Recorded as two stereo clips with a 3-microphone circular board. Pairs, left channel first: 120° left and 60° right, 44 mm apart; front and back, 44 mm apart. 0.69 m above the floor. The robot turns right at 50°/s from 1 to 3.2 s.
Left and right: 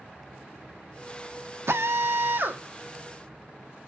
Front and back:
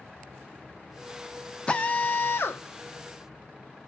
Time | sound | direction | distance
1.7 | a drill | 65° right | 0.5 m